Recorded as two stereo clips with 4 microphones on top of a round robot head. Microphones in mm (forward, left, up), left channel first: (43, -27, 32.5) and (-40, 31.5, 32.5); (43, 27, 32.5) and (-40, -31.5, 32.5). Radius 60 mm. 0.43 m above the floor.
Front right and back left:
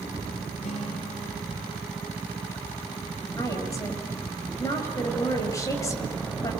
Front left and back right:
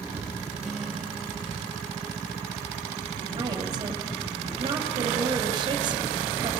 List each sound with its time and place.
0.6 s a guitar: 55° right, 6 m
3.4 s a woman speaking: 95° right, 7 m